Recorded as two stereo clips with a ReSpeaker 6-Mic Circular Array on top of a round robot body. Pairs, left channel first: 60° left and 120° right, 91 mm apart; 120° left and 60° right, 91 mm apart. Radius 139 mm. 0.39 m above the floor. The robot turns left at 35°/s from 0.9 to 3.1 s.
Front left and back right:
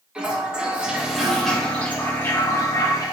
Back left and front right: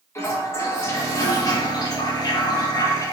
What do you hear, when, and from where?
0.1 s a toilet flushing: 165° left, 1.9 m; by 3.1 s 90° left, 1.9 m